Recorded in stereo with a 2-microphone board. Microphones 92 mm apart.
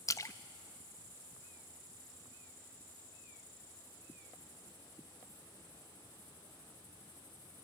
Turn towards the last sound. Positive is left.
turn(degrees=35)  # may be behind; listen again after turning